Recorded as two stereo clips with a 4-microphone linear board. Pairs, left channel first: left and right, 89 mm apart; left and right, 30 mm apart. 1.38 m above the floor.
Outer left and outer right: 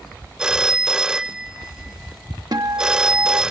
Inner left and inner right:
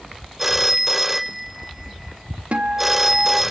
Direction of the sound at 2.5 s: 50° right (ahead or behind).